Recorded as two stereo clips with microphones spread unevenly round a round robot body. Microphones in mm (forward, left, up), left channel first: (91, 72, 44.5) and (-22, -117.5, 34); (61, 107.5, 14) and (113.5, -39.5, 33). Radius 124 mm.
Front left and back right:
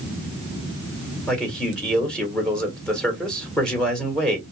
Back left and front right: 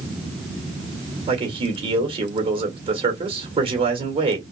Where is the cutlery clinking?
I don't hear cutlery clinking.